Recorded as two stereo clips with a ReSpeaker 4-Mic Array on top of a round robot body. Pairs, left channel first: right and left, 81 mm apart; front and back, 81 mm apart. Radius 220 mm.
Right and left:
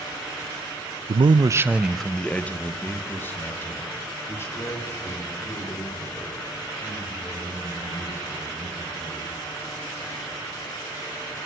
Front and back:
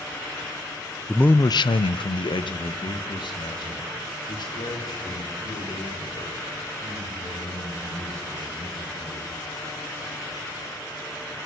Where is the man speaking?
85° left, 0.7 m; by 9.2 s 35° right, 9.5 m.